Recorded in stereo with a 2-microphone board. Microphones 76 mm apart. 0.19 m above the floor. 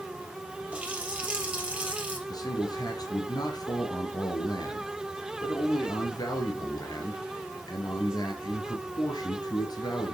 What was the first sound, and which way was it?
A running tap, 15° right (ahead or behind).